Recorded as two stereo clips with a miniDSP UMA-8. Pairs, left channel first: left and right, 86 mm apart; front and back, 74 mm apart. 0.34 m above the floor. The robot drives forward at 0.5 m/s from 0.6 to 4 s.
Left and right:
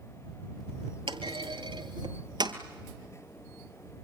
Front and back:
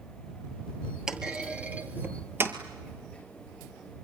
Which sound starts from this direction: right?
A clunk, at 1.1 s.